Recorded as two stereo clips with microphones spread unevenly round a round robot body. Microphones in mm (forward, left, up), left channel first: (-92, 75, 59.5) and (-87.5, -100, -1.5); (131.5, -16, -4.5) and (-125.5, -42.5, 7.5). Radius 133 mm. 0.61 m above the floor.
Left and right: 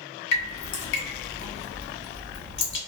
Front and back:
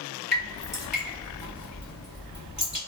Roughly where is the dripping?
Left.